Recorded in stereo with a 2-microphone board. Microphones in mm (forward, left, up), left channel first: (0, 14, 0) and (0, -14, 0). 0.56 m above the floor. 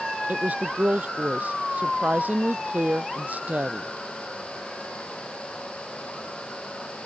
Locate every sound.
0.3 s a woman speaking: 80° right